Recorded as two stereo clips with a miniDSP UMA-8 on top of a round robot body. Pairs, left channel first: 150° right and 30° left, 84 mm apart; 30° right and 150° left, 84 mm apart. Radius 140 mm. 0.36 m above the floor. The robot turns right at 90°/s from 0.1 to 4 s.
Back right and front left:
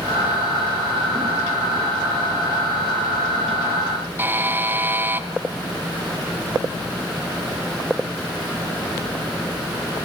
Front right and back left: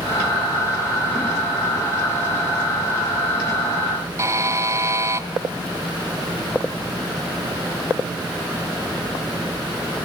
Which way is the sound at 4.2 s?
95° left.